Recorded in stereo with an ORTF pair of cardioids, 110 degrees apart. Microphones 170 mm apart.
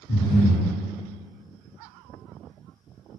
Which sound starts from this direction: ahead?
Breathing, at 0.1 s.